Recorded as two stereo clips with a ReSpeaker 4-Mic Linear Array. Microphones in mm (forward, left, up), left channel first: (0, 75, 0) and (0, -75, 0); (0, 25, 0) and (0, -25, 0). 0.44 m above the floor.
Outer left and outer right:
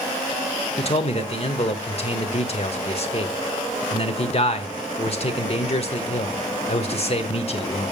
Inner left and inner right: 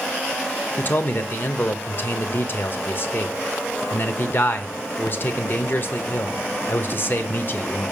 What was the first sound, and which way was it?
A man speaking, 45° left (ahead or behind).